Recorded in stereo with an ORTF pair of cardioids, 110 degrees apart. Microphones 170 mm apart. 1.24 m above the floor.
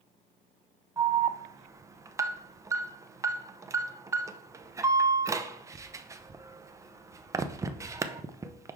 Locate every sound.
1.0 s an alarm: 20° right, 0.5 m